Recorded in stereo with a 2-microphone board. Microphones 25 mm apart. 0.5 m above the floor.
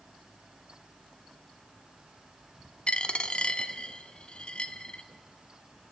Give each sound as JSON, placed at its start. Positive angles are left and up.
{"t": 2.9, "sound": "a dropped coin", "side_deg": 45, "distance_m": 1.1}